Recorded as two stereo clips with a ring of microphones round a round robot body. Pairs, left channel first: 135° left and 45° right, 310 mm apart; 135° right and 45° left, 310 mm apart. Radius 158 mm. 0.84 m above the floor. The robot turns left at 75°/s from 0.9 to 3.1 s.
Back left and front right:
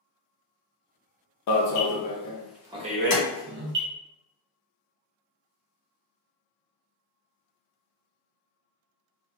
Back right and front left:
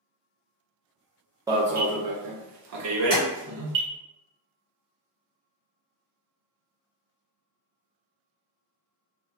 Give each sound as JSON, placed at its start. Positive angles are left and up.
{"t": 1.5, "sound": "an alarm", "azimuth_deg": 125, "distance_m": 0.6}
{"t": 3.1, "sound": "tapping", "azimuth_deg": 150, "distance_m": 1.6}